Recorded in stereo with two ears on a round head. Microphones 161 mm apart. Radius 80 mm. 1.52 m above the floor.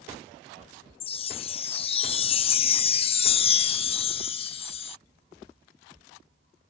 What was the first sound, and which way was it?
A chime, 35° left (ahead or behind).